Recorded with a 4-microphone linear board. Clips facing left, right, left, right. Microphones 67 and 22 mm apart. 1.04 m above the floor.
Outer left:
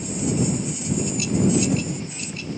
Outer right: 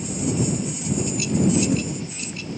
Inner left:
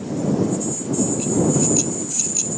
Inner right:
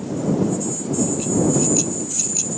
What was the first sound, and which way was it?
Only background noise.